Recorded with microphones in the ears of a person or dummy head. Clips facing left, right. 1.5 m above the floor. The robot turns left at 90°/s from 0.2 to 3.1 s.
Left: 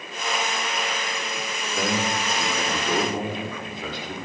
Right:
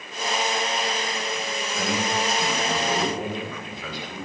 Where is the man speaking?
145° left, 5 m; by 4.2 s 25° left, 5 m.